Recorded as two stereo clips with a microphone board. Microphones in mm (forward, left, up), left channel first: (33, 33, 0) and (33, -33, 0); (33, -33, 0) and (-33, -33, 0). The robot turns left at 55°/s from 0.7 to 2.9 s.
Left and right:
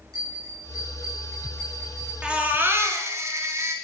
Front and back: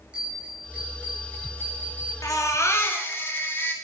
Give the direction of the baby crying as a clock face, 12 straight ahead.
1 o'clock.